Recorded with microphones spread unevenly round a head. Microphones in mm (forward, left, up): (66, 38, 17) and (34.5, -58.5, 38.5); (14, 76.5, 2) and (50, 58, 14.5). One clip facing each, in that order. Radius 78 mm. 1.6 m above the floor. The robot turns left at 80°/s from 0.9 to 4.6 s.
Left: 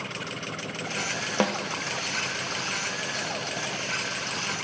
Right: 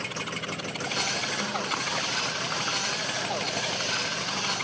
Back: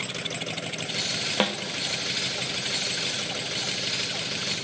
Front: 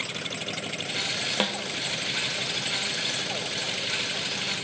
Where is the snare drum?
60° left, 1.2 m; by 1.6 s 45° left, 1.2 m.